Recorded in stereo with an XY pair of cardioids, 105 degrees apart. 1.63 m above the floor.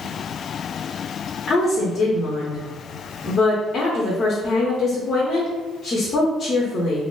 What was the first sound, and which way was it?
A woman speaking, 50° left.